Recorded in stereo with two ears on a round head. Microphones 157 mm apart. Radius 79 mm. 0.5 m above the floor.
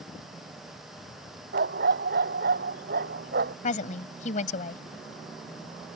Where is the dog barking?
60° right (ahead or behind).